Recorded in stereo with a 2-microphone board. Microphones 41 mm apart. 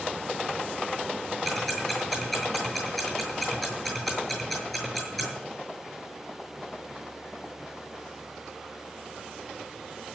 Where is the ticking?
5° left (ahead or behind), 7 m.